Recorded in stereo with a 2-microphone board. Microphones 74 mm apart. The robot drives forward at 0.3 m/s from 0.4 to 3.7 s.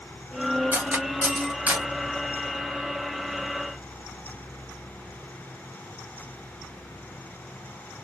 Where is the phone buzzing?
I don't hear a phone buzzing.